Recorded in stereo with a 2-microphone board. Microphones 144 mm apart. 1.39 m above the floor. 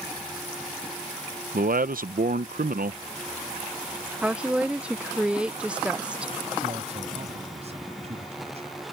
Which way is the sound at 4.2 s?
5° right (ahead or behind).